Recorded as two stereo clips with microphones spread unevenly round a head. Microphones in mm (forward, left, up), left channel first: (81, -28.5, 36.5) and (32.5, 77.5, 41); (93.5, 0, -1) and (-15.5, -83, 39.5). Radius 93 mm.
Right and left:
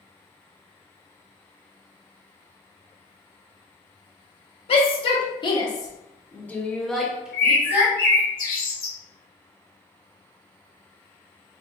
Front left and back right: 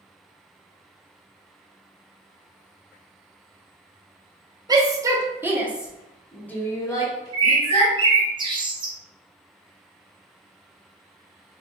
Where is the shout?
75° right, 1.2 m; by 7.9 s 50° left, 1.2 m.